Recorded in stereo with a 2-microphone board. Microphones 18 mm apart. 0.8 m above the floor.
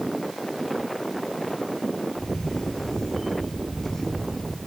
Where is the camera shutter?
35° left (ahead or behind), 7 m.